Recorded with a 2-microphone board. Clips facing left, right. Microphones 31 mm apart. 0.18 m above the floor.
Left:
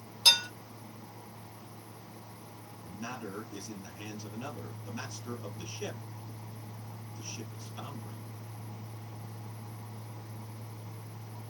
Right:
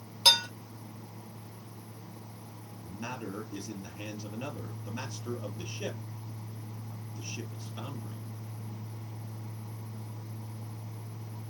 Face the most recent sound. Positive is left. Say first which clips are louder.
# right 2 dB
turn(degrees=-15)  # may be behind; listen again after turning